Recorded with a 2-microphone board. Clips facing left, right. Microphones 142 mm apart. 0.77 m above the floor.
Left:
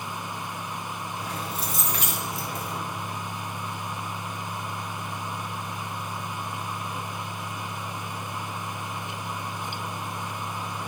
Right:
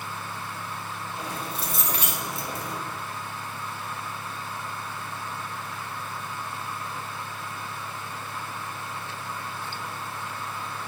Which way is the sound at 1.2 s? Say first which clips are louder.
Right 1 dB; 30° right (ahead or behind).